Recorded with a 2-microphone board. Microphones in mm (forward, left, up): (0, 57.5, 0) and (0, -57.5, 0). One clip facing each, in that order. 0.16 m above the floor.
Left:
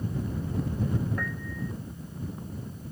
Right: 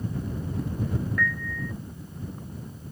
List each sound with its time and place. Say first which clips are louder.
1.2 s a piano: right 4 dB; 25° left (ahead or behind)